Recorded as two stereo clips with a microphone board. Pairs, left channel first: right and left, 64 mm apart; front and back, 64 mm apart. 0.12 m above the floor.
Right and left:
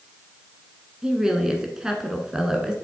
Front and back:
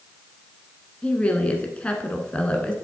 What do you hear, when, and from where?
1.0 s a woman speaking: 30° left, 1.1 m